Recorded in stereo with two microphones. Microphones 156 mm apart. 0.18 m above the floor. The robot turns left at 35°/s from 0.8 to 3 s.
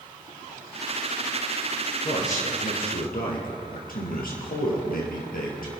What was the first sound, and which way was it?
A man speaking, 130° left.